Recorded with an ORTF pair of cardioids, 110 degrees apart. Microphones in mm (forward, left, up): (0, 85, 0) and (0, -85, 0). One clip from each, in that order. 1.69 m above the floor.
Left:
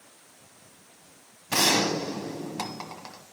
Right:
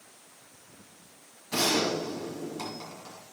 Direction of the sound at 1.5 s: 70° left.